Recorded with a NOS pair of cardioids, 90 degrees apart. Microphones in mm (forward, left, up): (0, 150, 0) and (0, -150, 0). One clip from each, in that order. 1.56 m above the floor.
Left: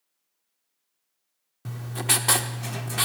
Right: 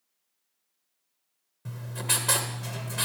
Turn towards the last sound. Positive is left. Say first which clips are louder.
# left 4 dB
turn(degrees=35)